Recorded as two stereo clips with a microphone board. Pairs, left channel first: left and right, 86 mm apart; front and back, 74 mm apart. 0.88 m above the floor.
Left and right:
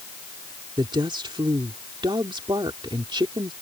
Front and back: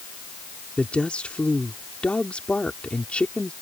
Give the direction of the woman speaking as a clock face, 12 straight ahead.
2 o'clock.